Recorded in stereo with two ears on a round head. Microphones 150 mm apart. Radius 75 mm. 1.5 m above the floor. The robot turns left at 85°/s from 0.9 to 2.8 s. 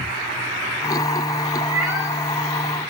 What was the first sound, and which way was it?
A cat meowing, 135° right.